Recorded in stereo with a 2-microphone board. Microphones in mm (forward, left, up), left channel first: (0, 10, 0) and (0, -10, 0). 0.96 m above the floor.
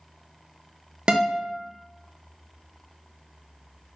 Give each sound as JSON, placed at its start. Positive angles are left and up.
{"t": 1.1, "sound": "a guitar", "side_deg": -50, "distance_m": 0.5}